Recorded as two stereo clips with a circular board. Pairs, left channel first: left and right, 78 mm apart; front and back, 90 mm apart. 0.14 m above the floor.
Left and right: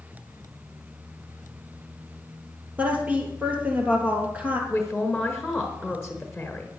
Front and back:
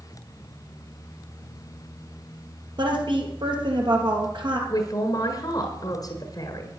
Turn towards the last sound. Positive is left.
turn(degrees=5)